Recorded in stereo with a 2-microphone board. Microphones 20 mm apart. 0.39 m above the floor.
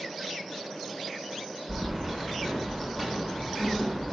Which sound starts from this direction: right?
Keys jangling, at 1.7 s.